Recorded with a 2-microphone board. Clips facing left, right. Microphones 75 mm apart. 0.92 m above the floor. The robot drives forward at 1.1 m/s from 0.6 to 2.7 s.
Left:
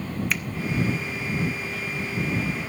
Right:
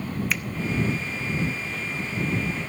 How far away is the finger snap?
About 0.6 m.